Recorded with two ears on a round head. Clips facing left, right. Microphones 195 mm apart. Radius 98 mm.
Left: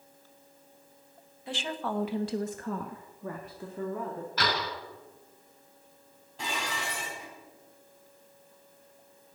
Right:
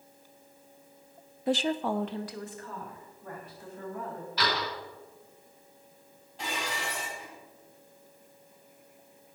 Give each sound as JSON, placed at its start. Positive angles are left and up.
{"t": 1.5, "sound": "a woman speaking", "side_deg": -40, "distance_m": 0.7}
{"t": 4.4, "sound": "a door slam", "side_deg": 45, "distance_m": 5.0}
{"t": 6.4, "sound": "dishes clattering", "side_deg": 70, "distance_m": 4.0}